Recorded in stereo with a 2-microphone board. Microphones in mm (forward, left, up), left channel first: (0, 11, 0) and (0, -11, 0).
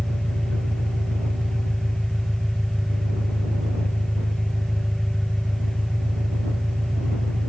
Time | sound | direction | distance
0.0 | an engine running | 30° left (ahead or behind) | ?